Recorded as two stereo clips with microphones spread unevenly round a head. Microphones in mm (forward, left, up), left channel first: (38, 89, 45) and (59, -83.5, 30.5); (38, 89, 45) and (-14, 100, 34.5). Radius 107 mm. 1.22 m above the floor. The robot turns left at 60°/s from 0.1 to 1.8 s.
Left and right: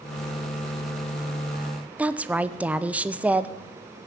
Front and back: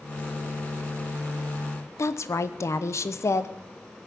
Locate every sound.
2.0 s a woman speaking: 5° right, 0.8 m